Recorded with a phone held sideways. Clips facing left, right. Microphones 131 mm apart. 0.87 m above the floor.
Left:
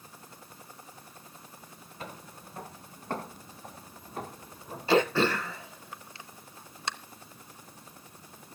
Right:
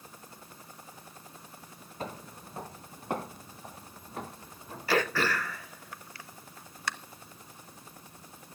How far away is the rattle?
No rattle in this recording.